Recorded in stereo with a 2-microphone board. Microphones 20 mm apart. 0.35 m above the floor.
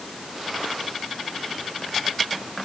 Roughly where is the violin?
No violin in this recording.